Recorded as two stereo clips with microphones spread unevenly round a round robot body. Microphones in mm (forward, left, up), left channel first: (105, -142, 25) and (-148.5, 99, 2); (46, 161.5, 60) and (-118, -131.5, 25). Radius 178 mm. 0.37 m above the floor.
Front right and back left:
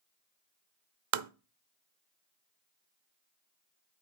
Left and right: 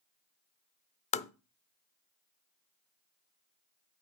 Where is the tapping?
130° left, 0.6 m.